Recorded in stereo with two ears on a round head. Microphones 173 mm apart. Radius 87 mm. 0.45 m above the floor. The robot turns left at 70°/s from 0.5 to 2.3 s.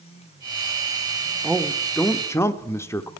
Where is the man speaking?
5° right (ahead or behind), 0.7 m; by 3.1 s 15° left (ahead or behind), 0.7 m.